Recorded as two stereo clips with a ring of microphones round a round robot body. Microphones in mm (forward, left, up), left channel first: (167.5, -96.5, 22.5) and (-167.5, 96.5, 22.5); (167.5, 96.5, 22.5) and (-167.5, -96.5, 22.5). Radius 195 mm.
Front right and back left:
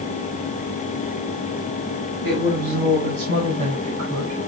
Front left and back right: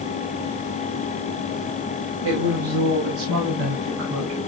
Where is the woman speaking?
160° right, 5 m; by 4.4 s 130° right, 6 m.